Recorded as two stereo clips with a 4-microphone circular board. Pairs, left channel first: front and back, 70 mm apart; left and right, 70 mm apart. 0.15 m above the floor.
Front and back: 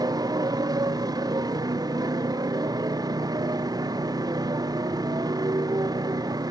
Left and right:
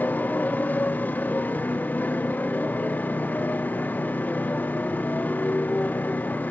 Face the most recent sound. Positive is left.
turn(degrees=155)